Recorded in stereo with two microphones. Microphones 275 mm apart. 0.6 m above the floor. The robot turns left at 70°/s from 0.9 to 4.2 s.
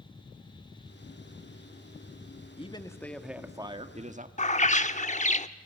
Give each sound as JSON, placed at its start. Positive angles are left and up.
{"t": 2.6, "sound": "a man speaking", "side_deg": 20, "distance_m": 1.3}
{"t": 4.4, "sound": "a bird", "side_deg": 25, "distance_m": 0.8}